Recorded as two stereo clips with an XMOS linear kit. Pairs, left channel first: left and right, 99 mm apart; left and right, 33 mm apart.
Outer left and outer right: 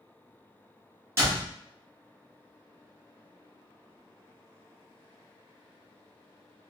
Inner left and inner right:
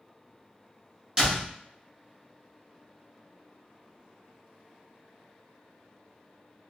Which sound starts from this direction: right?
A door slam, at 1.2 s.